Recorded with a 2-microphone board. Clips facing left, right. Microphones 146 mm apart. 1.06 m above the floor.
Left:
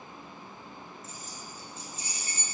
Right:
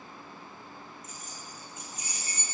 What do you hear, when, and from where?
1.0 s keys jangling: 30° left (ahead or behind), 1.0 m